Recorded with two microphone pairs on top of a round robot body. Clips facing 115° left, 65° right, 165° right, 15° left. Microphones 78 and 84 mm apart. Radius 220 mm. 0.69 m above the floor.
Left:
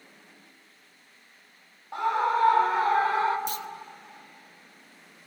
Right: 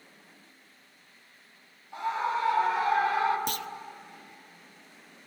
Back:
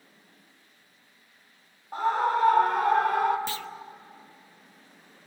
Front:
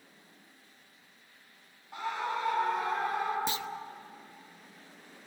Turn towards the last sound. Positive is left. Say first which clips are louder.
# even, even
turn(degrees=-55)